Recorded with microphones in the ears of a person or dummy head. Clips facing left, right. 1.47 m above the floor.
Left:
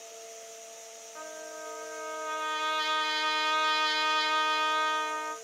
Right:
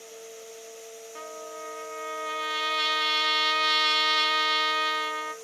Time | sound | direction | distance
1.1 | a trumpet | 45° right (ahead or behind) | 0.8 m